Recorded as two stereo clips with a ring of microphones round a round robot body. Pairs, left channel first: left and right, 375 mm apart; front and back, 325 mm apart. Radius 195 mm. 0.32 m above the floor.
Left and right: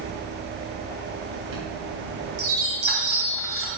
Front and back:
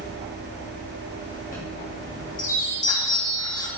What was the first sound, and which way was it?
A chime, 65° right.